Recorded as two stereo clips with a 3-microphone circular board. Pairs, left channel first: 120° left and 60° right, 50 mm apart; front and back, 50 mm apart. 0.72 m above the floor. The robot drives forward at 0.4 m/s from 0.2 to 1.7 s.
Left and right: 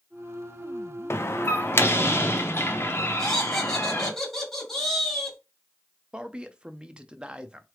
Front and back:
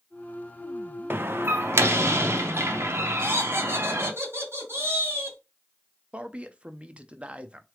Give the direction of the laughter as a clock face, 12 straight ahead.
5 o'clock.